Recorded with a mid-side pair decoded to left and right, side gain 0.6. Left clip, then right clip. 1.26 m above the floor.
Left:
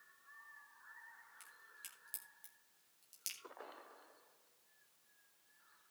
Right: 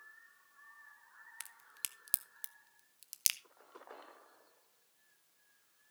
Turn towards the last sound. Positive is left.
turn(degrees=-65)